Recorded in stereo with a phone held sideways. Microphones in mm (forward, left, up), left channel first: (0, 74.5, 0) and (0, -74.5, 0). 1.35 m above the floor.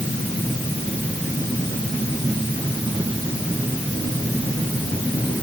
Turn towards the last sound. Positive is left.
No sound to turn to.